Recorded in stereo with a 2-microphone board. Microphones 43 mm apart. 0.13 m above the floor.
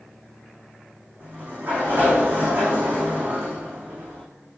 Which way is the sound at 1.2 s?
45° right (ahead or behind).